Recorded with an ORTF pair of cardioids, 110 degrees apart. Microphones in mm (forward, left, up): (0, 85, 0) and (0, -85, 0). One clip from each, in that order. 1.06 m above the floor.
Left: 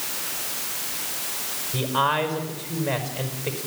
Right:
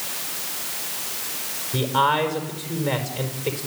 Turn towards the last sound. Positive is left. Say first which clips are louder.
# right 3 dB
turn(degrees=-30)